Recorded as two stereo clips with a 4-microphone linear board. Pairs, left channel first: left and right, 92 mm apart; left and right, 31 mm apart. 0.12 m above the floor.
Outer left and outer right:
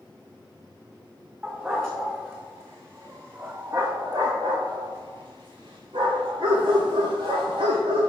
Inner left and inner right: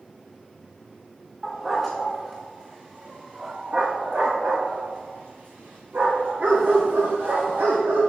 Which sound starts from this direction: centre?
A dog barking, at 1.4 s.